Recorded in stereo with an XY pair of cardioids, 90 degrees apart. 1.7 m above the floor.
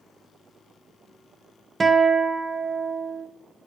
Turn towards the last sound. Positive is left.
turn(degrees=-30)